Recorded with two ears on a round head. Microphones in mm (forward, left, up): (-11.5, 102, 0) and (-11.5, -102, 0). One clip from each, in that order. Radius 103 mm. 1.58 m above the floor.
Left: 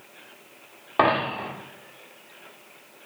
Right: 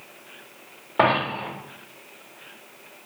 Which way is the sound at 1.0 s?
30° left (ahead or behind).